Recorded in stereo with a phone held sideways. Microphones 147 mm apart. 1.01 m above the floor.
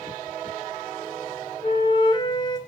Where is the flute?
30° left (ahead or behind), 1.6 m.